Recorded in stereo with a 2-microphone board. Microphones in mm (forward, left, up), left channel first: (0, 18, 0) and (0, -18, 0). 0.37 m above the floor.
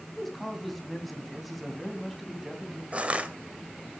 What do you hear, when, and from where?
0.1 s a man speaking: centre (ahead or behind), 3 m
2.9 s crushing: 35° right (ahead or behind), 1.8 m